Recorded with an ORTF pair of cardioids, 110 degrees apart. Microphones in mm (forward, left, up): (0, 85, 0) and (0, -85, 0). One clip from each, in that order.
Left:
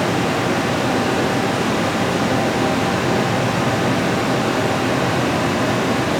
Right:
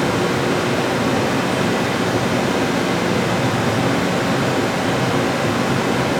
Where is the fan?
40° right, 2.5 m.